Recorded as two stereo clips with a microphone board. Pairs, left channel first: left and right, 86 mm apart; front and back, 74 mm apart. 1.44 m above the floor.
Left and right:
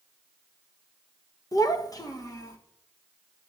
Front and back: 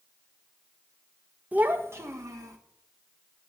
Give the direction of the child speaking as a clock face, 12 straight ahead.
8 o'clock.